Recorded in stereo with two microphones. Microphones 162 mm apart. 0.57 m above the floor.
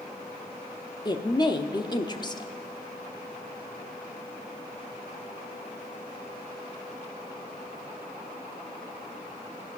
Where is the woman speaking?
25° left (ahead or behind), 0.8 m.